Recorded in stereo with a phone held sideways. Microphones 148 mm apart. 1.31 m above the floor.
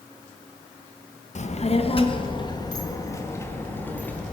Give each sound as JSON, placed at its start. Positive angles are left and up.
{"t": 1.4, "sound": "a child speaking", "side_deg": 55, "distance_m": 1.2}